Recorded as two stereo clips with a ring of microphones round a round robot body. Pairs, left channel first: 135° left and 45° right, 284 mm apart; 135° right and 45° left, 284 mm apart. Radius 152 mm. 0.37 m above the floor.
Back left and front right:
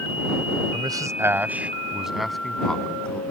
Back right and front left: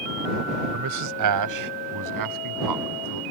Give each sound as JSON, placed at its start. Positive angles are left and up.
{"t": 0.7, "sound": "a man speaking", "azimuth_deg": 30}